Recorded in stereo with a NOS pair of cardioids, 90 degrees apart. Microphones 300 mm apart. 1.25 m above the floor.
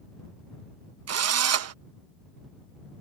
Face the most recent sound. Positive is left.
turn(degrees=-55)